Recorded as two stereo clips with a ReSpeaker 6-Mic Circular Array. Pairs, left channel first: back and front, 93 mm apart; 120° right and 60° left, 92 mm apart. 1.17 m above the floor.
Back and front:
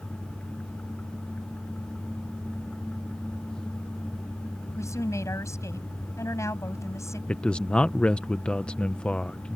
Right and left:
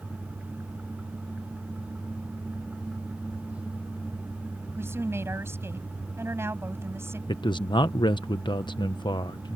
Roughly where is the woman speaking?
Behind left.